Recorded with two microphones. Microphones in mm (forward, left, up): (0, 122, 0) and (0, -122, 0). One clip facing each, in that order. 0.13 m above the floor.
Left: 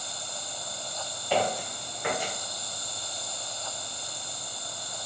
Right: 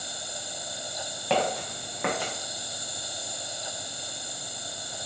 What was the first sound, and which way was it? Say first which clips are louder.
An insect: right 1 dB; 80° right.